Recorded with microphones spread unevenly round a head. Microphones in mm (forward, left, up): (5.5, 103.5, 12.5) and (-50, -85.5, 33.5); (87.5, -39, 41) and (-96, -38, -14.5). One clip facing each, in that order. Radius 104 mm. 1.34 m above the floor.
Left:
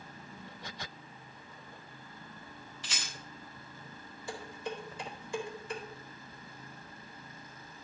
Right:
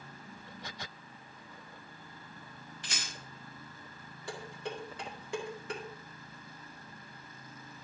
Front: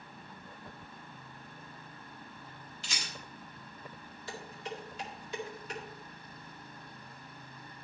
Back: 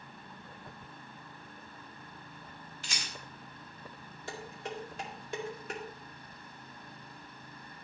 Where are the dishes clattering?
135° right, 2 m.